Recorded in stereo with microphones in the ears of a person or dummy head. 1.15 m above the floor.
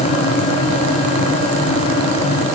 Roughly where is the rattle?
No rattle in this recording.